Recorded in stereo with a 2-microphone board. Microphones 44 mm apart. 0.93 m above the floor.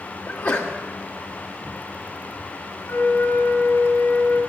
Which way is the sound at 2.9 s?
85° left.